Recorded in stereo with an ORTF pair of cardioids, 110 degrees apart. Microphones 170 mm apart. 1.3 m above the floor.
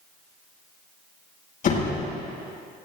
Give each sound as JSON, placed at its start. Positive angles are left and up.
{"t": 1.6, "sound": "a door slam", "azimuth_deg": 55, "distance_m": 5.5}